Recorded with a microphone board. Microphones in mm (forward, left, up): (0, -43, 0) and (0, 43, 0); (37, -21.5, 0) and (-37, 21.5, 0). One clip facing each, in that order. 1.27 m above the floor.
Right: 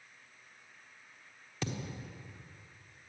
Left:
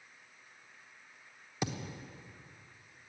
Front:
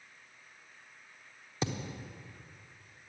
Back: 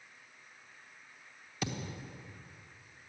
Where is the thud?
25° left, 1.1 m.